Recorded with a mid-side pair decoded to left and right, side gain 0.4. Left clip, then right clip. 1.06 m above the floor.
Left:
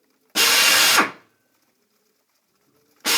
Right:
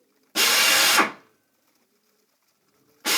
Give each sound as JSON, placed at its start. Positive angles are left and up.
{"t": 0.3, "sound": "a drill", "azimuth_deg": 30, "distance_m": 1.0}